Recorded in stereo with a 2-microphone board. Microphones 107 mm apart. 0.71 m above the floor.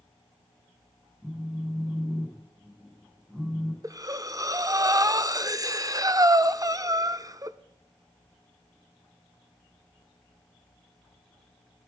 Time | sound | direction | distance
1.2 | a phone buzzing | 10° right (ahead or behind) | 3.5 m
3.8 | breathing | 35° right (ahead or behind) | 0.6 m